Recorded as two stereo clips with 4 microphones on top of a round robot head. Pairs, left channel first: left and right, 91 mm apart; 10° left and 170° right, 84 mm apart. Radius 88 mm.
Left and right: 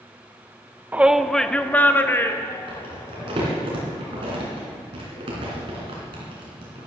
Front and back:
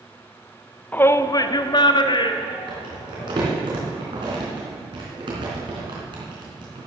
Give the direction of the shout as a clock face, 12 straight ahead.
1 o'clock.